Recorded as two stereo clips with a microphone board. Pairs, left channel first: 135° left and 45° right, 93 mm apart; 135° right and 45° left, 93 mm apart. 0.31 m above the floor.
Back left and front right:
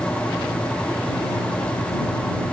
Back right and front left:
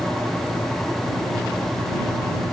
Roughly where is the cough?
No cough in this recording.